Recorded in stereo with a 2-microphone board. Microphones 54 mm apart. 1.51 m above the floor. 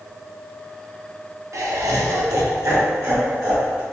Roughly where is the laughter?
Right.